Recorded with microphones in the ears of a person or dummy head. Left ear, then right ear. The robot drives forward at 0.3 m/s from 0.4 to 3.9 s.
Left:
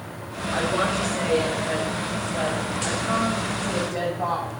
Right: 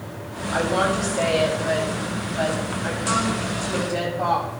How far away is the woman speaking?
About 9.5 m.